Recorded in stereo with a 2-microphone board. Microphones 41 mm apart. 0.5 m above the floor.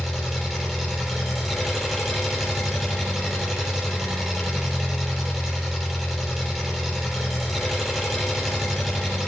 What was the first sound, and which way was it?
An engine running, centre (ahead or behind).